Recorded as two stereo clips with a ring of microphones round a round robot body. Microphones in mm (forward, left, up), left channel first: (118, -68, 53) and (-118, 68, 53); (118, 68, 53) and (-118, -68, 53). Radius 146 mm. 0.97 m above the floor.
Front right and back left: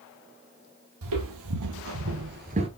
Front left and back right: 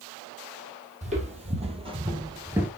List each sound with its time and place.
1.0 s footsteps: 145° left, 2 m; by 2.7 s 135° left, 0.9 m